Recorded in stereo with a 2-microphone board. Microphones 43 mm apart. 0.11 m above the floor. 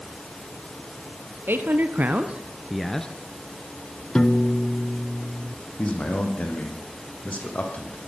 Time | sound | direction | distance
1.5 | a man speaking | 60° right (ahead or behind) | 2 m
4.2 | a piano | 20° left (ahead or behind) | 1.1 m
5.8 | a man speaking | 40° left (ahead or behind) | 5 m